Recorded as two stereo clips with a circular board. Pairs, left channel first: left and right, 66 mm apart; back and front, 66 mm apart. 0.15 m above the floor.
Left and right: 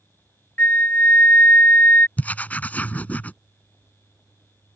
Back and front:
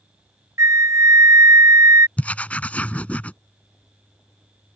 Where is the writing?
135° left.